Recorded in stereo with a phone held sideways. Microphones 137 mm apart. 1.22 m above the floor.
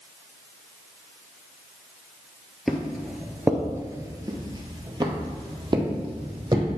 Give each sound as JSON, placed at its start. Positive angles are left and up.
{"t": 2.7, "sound": "footsteps", "side_deg": 0, "distance_m": 1.4}